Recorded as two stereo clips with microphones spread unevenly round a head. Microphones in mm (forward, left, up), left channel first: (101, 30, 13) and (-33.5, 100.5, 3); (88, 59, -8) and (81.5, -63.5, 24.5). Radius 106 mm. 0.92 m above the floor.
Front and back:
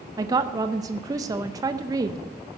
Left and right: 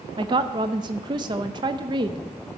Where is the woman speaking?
155° right, 0.5 m.